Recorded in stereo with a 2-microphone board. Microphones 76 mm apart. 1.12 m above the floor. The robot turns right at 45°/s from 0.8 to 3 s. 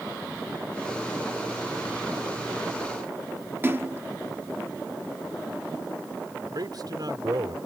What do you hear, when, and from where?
3.6 s a splash: 30° right (ahead or behind)
6.5 s a man speaking: 60° right (ahead or behind)